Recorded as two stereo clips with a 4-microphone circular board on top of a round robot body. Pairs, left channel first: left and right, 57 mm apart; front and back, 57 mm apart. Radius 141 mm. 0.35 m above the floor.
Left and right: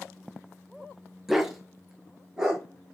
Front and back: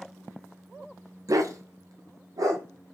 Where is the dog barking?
175° right, 0.6 m; by 2.6 s 170° right, 1.2 m.